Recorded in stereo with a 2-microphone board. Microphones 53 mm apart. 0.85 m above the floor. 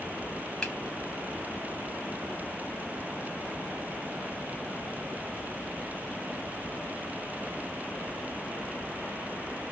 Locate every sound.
0.6 s a finger snap: 10° left (ahead or behind), 1.0 m